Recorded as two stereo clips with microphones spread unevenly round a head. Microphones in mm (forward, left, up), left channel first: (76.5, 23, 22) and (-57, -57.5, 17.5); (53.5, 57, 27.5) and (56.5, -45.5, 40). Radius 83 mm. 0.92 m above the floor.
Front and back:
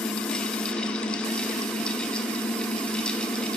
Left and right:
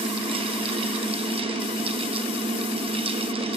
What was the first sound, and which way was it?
A fan, 55° right.